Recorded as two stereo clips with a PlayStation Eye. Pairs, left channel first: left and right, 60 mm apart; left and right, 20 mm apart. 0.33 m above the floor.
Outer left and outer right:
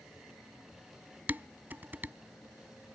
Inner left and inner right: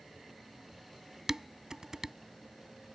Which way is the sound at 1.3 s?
30° right (ahead or behind).